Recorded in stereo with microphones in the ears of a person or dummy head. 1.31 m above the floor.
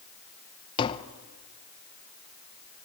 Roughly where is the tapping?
Left.